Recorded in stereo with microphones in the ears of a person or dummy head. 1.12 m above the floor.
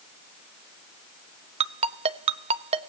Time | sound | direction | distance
1.6 | a ringtone | 35° right (ahead or behind) | 0.8 m